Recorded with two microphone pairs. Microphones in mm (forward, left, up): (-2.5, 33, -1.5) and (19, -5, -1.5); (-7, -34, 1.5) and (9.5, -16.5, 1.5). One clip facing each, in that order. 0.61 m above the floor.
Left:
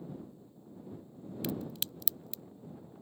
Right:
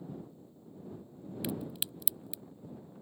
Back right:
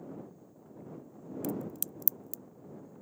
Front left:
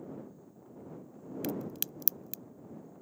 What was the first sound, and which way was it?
A crack, 15° left.